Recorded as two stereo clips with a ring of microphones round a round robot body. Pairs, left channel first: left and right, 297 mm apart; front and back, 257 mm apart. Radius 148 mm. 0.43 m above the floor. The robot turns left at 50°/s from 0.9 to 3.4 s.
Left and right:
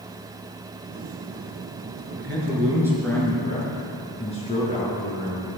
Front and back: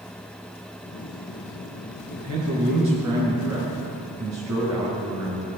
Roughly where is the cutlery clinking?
I don't hear cutlery clinking.